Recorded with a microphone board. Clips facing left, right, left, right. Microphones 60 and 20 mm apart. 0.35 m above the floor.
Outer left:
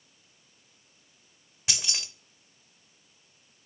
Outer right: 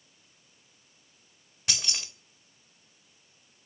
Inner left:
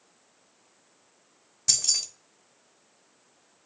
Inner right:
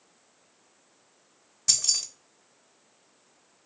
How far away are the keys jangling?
About 0.7 m.